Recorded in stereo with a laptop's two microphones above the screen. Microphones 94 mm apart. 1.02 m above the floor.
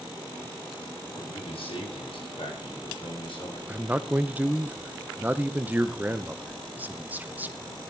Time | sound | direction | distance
1.1 | a man speaking | 80° left | 6.5 m
3.7 | a man speaking | 20° right (ahead or behind) | 0.8 m